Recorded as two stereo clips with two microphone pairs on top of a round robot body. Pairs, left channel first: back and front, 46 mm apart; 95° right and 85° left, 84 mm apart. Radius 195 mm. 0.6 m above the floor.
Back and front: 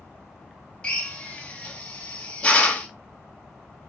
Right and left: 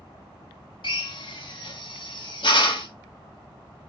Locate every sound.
0.8 s a drill: 110° right, 3 m